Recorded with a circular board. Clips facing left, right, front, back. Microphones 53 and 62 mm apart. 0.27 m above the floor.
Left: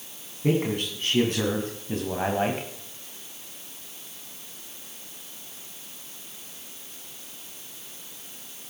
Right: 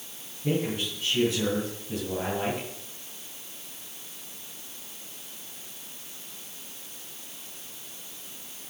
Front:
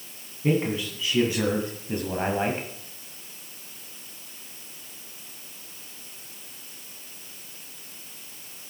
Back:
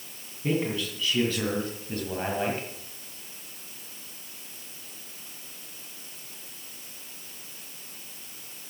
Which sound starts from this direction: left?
A man speaking, at 0.4 s.